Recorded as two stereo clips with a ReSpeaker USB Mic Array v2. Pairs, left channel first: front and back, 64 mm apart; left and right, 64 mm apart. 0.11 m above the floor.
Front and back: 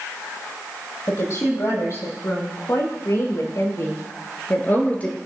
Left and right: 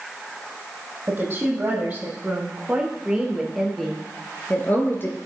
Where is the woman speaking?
35° right, 4.5 m; by 5.2 s 60° left, 2 m.